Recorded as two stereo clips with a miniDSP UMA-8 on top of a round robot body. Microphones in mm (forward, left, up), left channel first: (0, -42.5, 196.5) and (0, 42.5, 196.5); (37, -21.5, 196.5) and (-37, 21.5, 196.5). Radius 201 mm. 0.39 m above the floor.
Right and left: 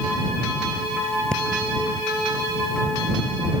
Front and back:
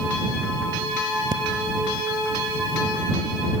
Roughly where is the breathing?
Behind.